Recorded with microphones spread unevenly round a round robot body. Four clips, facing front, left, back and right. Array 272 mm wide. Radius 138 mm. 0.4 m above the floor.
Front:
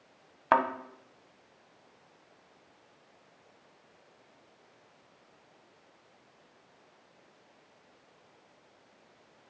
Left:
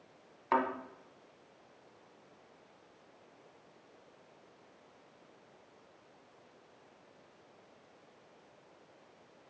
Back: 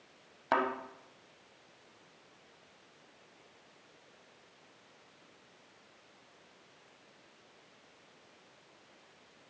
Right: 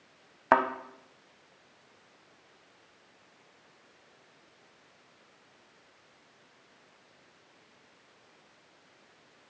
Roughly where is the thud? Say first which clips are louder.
Right 6 dB, front 5 dB; right.